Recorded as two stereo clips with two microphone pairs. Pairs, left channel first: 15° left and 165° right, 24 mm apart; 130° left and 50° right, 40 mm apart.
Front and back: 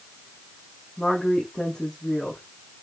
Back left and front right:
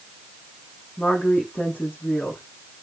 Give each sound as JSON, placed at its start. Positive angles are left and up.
{"t": 1.0, "sound": "a woman speaking", "azimuth_deg": 85, "distance_m": 6.5}